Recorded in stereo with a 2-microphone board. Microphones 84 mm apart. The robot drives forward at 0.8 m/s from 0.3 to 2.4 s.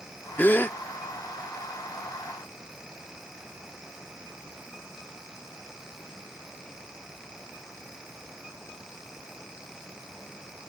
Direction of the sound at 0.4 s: 25° left (ahead or behind).